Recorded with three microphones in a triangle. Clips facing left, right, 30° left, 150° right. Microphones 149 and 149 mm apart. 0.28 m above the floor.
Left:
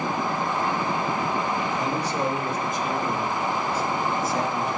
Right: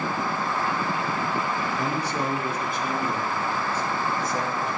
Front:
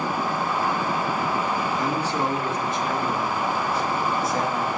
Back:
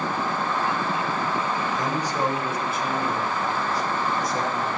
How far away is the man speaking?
About 2 m.